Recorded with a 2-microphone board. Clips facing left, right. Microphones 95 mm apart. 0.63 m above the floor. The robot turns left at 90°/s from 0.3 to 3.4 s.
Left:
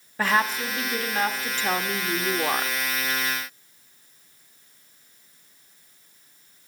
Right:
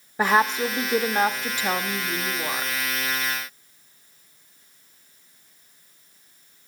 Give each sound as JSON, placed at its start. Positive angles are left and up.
{"t": 0.2, "sound": "a woman speaking", "side_deg": -15, "distance_m": 0.7}